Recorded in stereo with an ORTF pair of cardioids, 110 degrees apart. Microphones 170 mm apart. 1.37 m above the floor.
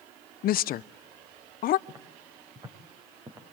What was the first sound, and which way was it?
A woman speaking, 60° left.